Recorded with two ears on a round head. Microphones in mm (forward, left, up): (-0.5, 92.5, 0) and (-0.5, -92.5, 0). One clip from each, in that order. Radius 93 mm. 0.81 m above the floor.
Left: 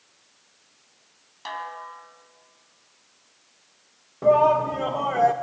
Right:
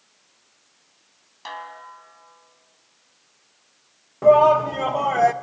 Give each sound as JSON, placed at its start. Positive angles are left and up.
{"t": 1.4, "sound": "a snare drum", "side_deg": 0, "distance_m": 1.9}
{"t": 4.2, "sound": "a shout", "side_deg": -25, "distance_m": 0.7}